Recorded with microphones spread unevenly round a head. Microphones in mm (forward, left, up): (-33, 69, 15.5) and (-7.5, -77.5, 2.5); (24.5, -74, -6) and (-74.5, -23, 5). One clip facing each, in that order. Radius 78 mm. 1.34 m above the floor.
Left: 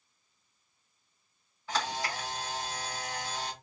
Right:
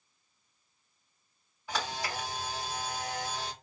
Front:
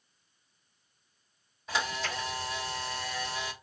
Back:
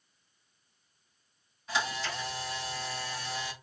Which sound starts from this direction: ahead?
A camera shutter, at 1.7 s.